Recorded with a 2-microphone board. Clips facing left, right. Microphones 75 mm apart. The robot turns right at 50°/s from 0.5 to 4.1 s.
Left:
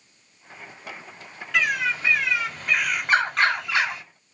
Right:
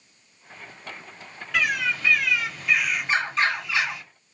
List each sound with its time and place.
1.5 s a bird: straight ahead, 1.5 m; by 4.0 s 125° left, 1.5 m